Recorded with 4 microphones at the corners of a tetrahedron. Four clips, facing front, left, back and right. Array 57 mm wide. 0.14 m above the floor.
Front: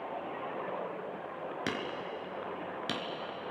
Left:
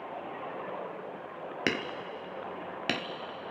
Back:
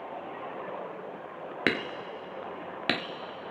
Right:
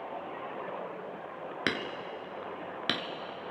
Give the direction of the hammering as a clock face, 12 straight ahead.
6 o'clock.